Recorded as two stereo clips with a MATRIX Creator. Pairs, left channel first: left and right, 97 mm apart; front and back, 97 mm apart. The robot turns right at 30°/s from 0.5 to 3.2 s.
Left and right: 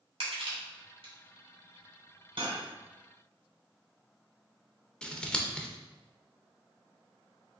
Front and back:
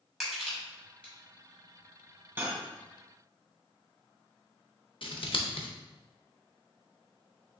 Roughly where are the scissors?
Ahead.